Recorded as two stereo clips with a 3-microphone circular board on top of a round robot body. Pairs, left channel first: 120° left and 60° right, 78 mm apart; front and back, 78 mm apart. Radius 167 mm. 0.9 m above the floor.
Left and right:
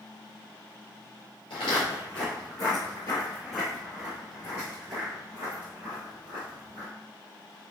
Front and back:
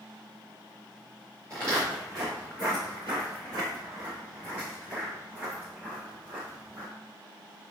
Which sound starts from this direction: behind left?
Footsteps, at 1.5 s.